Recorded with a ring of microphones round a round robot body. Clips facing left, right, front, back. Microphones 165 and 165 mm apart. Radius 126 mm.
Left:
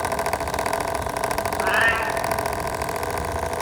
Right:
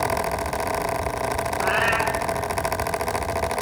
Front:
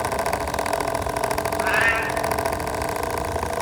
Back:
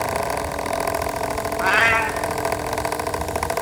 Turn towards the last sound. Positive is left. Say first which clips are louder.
# right 2 dB, back 2 dB
turn(degrees=-175)